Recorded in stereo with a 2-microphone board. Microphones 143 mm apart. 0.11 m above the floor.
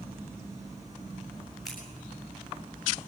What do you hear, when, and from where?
1.6 s scissors: centre (ahead or behind), 7.5 m